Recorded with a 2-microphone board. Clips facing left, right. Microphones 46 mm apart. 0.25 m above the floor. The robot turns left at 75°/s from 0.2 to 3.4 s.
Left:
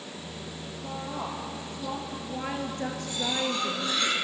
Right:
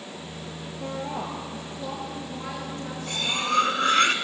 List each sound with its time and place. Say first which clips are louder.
0.8 s a woman speaking: right 3 dB; 85° right, 4.5 m; by 4.1 s 80° left, 4.5 m
3.1 s cutlery clinking: right 5 dB; 65° right (ahead or behind), 1.5 m; by 4.2 s 55° right (ahead or behind), 1.5 m